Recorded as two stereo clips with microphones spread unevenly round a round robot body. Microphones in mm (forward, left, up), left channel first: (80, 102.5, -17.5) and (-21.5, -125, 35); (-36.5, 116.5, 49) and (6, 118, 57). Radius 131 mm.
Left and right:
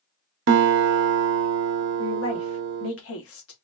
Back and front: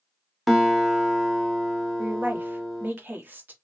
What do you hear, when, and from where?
0.5 s a guitar: 95° right, 0.6 m
2.0 s a woman speaking: 50° left, 1.1 m